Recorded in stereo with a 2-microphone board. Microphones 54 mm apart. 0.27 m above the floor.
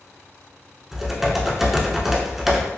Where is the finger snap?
No finger snap in this recording.